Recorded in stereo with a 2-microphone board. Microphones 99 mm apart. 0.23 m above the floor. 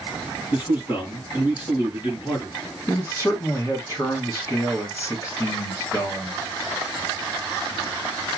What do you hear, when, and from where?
0.5 s a man speaking: 50° left (ahead or behind), 3.5 m
2.9 s a man speaking: 30° left (ahead or behind), 3 m